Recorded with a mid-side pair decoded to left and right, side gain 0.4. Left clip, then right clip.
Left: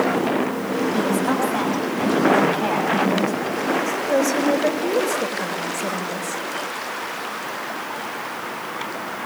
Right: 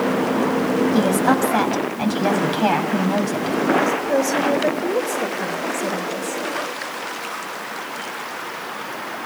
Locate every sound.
0.9 s a woman speaking: 55° right, 6.5 m
3.9 s a woman speaking: 10° right, 5 m